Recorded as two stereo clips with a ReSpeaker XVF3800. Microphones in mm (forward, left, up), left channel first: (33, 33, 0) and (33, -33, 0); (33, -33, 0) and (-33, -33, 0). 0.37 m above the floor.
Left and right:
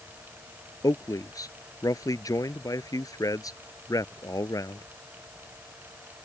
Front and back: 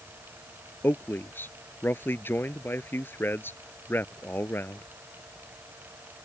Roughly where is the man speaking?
Ahead left.